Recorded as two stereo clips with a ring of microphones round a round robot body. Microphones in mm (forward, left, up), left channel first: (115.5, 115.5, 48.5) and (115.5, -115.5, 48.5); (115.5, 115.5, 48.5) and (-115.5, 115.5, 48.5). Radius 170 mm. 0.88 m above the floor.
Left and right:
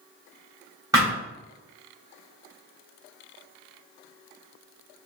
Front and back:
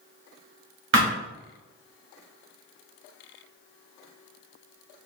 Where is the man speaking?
I don't hear a man speaking.